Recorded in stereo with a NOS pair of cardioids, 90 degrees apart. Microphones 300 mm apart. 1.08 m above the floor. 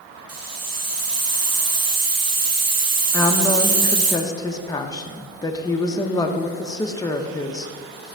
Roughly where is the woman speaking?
Ahead.